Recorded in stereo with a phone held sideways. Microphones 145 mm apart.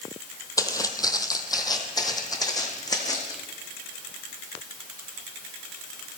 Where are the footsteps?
25° left (ahead or behind), 1.0 m.